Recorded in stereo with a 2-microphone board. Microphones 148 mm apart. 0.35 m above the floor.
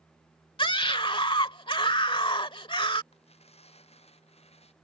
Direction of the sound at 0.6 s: 35° left (ahead or behind).